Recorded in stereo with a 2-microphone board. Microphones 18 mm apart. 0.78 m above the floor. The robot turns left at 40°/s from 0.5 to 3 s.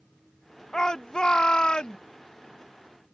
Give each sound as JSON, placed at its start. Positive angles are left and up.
{"t": 0.7, "sound": "a shout", "azimuth_deg": 130}